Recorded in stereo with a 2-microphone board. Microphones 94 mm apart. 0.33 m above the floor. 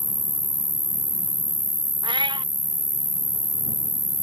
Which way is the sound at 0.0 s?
40° left (ahead or behind).